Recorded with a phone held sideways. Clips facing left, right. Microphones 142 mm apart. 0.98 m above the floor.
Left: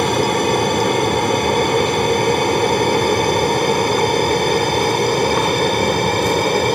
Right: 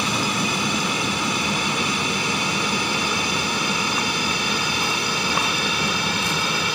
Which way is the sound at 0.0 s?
55° left (ahead or behind).